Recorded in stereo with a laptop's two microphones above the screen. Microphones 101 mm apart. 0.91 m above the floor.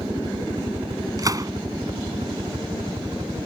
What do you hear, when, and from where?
0.0 s a helicopter: 65° right (ahead or behind); by 3.5 s 70° right (ahead or behind)
1.2 s a gunshot: 35° right (ahead or behind)